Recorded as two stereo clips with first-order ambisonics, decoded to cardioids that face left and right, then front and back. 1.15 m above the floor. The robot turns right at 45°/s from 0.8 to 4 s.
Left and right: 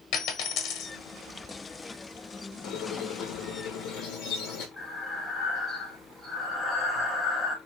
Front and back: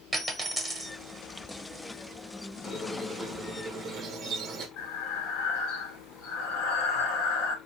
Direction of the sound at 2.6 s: 60° left.